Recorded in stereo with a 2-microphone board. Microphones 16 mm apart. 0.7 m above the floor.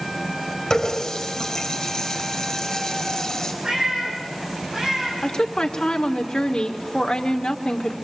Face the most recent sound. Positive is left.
turn(degrees=65)  # may be behind; listen again after turning